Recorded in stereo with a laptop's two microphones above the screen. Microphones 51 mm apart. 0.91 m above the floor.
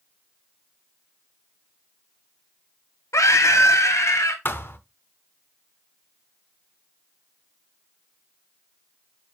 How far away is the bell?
I don't hear a bell.